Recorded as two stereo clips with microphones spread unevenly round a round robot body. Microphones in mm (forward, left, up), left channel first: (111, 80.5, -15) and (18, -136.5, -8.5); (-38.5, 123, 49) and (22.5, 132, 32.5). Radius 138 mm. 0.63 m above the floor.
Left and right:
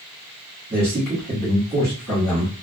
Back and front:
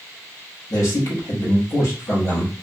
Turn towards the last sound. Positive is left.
turn(degrees=180)